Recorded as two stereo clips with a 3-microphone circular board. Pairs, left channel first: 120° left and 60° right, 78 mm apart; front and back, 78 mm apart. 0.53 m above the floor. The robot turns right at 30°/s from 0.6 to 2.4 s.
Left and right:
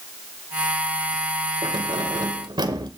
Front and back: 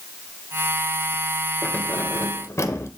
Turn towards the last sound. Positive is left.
turn(degrees=-50)